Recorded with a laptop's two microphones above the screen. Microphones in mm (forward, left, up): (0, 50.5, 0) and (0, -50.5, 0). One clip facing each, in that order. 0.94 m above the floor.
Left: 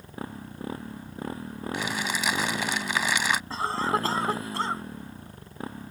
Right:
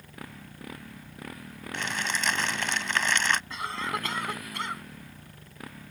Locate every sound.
0.0 s a motorcycle: 30° left (ahead or behind)
1.7 s crumpling: 10° left (ahead or behind)
3.5 s a cough: 35° left (ahead or behind)